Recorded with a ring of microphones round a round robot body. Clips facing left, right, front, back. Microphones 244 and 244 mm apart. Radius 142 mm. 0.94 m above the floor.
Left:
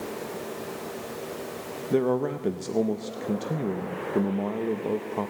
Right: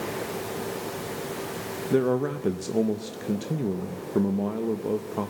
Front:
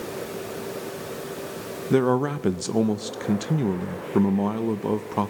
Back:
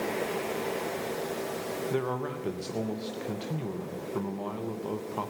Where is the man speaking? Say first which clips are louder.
Right 1 dB, front 13 dB; 10° right, 0.6 m.